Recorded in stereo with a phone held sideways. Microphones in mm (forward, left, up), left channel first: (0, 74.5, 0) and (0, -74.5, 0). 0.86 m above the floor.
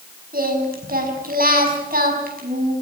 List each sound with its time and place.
0.3 s singing: 85° right, 5.5 m